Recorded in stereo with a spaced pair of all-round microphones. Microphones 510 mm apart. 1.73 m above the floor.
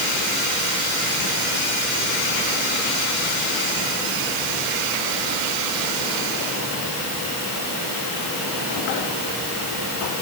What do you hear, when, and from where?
Only background noise.